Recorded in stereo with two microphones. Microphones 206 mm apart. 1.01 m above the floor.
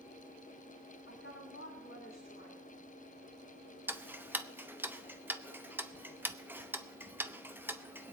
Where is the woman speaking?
80° left, 3.5 m.